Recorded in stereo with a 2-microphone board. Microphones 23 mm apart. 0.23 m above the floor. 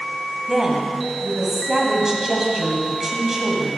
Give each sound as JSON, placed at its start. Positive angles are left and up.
{"t": 0.5, "sound": "a woman speaking", "side_deg": -20, "distance_m": 1.3}